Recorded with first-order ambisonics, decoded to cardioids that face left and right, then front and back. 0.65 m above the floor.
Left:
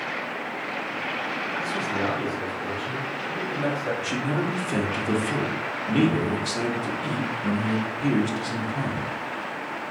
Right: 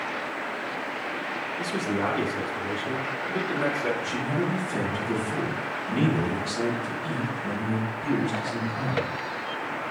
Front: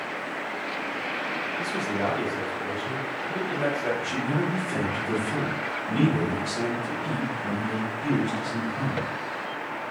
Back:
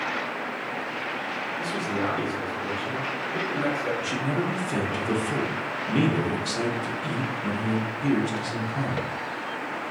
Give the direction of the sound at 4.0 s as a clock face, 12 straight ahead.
8 o'clock.